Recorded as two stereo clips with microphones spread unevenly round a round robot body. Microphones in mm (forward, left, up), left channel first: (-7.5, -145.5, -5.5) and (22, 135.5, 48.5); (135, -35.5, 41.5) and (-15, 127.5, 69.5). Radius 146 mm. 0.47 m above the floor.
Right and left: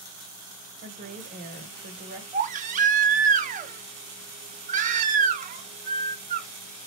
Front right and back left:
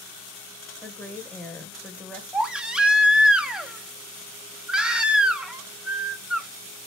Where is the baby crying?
35° left, 0.6 m.